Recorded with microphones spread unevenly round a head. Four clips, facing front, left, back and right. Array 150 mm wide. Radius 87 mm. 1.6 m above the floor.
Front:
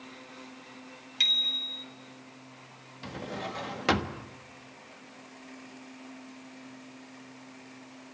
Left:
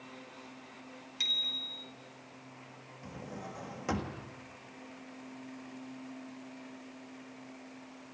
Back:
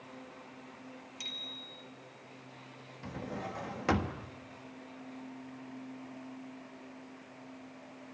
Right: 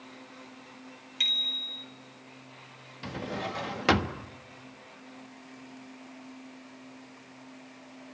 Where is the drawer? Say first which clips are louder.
Right 9 dB, front 3 dB; 60° right, 1.3 m.